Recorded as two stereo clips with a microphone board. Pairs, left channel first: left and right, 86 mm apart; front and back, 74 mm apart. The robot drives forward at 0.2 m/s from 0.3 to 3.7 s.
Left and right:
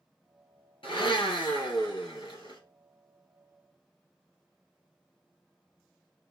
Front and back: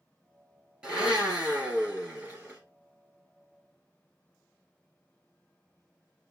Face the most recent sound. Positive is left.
turn(degrees=115)